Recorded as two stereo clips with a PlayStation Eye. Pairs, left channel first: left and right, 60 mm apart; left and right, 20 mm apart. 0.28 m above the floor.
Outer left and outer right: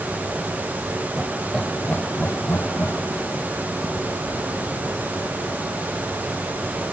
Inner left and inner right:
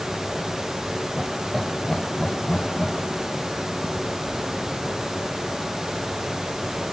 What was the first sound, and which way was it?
Laughter, 15° right (ahead or behind).